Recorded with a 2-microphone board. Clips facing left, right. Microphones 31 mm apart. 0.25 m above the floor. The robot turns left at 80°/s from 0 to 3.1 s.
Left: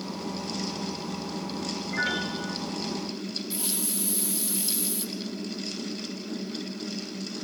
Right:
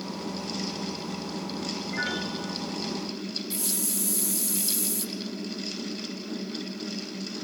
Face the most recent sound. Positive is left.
turn(degrees=35)  # may be behind; listen again after turning